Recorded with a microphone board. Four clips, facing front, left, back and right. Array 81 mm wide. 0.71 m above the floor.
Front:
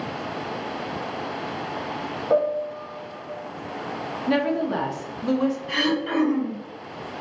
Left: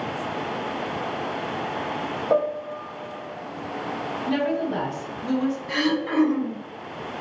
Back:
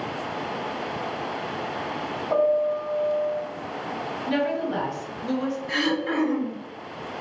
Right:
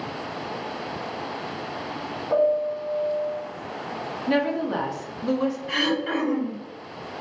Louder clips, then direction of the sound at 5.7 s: Left 1 dB, front 1 dB; 70° right.